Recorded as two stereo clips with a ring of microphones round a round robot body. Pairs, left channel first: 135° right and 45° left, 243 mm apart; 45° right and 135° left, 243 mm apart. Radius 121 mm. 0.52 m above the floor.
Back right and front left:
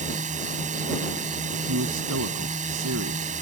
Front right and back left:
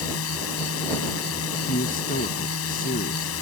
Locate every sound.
0.0 s a drone: 15° right
1.7 s a man speaking: 10° left